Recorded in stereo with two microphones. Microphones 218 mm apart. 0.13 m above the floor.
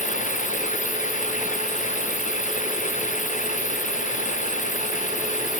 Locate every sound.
0.0 s running water: 35° left (ahead or behind)